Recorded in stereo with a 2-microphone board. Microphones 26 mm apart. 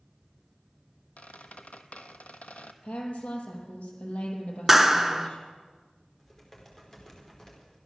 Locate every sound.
1.2 s a squeak: 70° left (ahead or behind), 0.9 m
2.8 s a woman speaking: 60° left (ahead or behind), 5 m
4.7 s a clap: 10° right (ahead or behind), 1.0 m
6.2 s typing on a keyboard: 15° left (ahead or behind), 4.5 m